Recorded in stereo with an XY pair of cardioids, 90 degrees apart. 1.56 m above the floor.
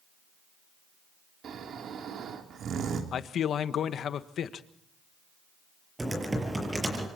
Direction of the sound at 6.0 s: 15° right.